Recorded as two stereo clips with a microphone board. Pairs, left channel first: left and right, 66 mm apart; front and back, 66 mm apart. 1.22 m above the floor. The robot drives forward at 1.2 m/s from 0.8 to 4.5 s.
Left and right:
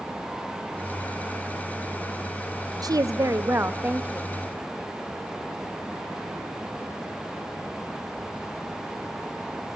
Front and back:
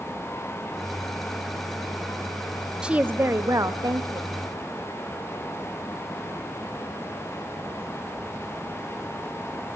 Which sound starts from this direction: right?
A woman speaking, at 2.8 s.